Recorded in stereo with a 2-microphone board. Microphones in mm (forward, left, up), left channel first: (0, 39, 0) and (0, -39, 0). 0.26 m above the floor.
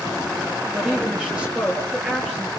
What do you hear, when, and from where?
0.7 s a woman speaking: 10° right (ahead or behind), 5.5 m